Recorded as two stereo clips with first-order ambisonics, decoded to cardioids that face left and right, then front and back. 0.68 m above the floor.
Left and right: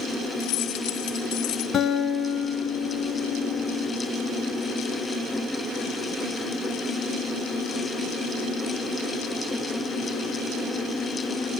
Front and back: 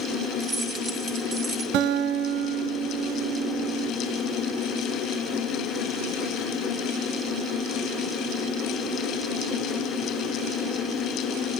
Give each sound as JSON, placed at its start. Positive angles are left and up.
{"t": 0.4, "sound": "keys jangling", "azimuth_deg": 105, "distance_m": 2.5}
{"t": 1.7, "sound": "a guitar", "azimuth_deg": 155, "distance_m": 3.0}